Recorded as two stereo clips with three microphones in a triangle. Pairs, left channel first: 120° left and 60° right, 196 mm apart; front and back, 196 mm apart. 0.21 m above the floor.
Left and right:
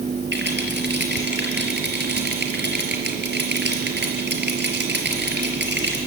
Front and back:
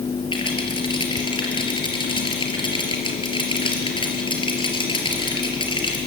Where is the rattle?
60° right, 4 m.